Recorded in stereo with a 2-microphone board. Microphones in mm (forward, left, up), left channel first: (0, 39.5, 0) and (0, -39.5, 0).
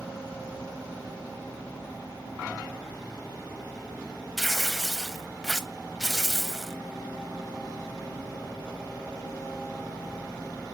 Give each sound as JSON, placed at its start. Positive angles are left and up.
{"t": 4.4, "sound": "tearing paper", "side_deg": 0, "distance_m": 0.6}